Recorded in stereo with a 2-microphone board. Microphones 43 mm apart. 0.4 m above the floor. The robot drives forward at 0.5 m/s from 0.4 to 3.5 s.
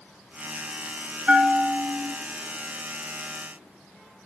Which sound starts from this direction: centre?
A bell, at 1.3 s.